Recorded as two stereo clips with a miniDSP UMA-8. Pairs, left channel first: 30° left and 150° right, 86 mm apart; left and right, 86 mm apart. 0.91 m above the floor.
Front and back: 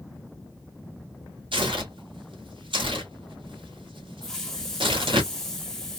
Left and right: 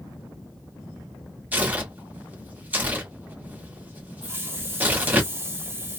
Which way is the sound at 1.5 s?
160° right.